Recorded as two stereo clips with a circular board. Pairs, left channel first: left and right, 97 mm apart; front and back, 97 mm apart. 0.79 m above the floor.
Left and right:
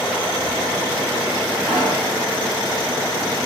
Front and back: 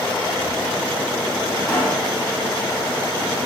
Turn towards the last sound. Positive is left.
turn(degrees=-60)